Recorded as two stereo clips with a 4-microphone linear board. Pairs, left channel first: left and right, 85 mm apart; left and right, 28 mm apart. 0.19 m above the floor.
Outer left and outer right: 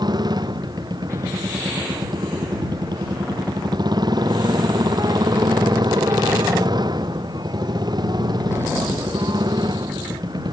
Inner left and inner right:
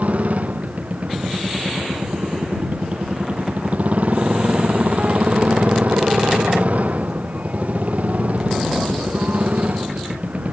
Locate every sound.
0.0 s a motorcycle: 55° right (ahead or behind)